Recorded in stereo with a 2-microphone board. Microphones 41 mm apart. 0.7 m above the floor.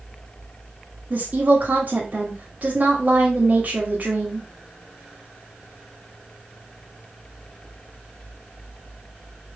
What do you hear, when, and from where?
1.1 s a woman speaking: 45° right (ahead or behind), 1.2 m